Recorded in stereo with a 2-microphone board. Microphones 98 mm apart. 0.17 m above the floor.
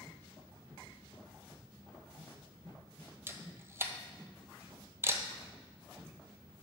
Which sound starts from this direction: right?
A camera shutter, at 3.3 s.